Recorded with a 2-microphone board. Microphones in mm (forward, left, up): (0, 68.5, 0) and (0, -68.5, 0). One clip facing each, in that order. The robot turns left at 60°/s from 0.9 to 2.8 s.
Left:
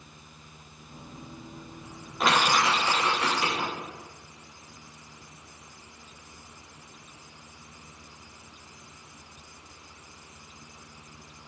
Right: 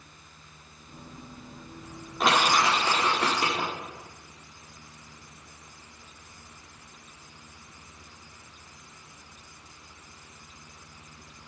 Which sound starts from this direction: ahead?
Crushing, at 2.2 s.